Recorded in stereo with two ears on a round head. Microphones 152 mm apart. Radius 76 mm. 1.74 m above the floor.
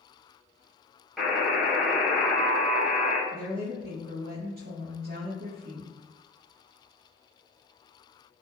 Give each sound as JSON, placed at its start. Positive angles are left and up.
{"t": 1.2, "sound": "a buzzer", "side_deg": 0, "distance_m": 0.8}
{"t": 3.3, "sound": "a woman speaking", "side_deg": -55, "distance_m": 0.7}